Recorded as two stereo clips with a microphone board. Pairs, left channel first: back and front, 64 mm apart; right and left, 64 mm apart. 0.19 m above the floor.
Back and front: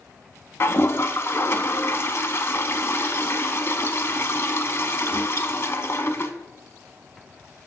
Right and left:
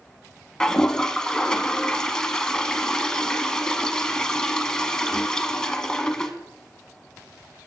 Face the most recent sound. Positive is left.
turn(degrees=-165)